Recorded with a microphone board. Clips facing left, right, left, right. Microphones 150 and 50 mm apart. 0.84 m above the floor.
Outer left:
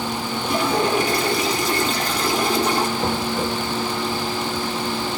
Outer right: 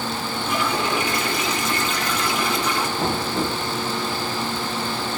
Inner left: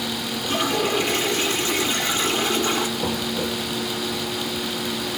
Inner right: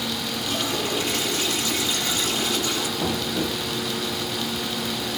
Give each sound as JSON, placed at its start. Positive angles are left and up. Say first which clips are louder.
{"t": 0.4, "sound": "a toilet flushing", "louder": "outer left 4 dB, inner left 5 dB", "side_deg": 35, "distance_m": 2.0}
{"t": 3.0, "sound": "knocking", "louder": "outer left 1 dB, even", "side_deg": -60, "distance_m": 7.5}